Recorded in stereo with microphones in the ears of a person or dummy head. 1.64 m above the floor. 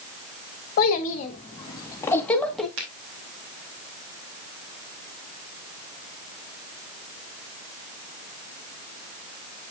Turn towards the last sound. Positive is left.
turn(degrees=-75)  # may be behind; listen again after turning